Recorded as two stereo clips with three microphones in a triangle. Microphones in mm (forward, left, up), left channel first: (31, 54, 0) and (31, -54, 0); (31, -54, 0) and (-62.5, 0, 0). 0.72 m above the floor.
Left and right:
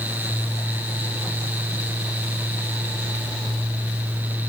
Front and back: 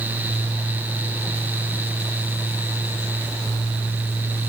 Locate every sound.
Only background noise.